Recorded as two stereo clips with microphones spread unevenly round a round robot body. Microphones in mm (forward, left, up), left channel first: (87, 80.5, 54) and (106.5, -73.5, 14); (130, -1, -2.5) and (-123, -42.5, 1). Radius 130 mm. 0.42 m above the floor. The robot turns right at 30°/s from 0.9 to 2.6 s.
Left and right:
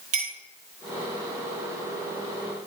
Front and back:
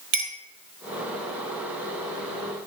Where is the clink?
120° right, 1.6 m.